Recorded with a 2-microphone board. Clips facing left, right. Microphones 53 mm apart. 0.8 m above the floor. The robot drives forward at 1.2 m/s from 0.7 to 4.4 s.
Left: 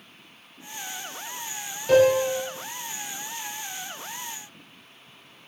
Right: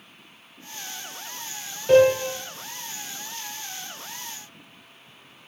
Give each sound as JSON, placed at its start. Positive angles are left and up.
{"t": 1.9, "sound": "a piano", "side_deg": -10, "distance_m": 4.0}